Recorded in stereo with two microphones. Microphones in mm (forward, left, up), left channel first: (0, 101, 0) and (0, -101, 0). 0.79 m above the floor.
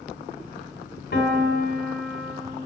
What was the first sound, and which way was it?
A piano, 55° left (ahead or behind).